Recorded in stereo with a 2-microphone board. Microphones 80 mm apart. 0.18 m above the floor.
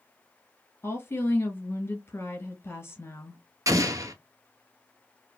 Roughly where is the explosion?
Right.